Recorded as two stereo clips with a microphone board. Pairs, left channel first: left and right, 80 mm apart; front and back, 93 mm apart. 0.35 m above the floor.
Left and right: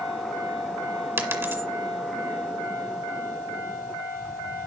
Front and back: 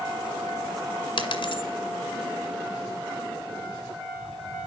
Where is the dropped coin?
30° right, 1.9 m.